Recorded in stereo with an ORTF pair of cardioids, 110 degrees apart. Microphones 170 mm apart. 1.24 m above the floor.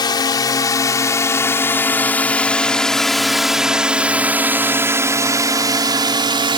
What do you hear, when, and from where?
0.0 s a drone: 25° left; by 6.6 s 30° right